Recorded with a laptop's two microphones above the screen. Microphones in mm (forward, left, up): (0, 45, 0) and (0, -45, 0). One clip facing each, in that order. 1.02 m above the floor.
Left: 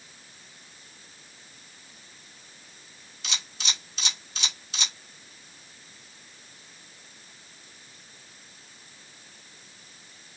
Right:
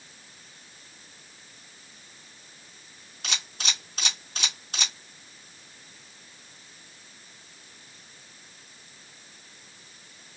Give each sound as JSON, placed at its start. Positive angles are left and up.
{"t": 3.2, "sound": "a camera shutter", "side_deg": -50, "distance_m": 1.8}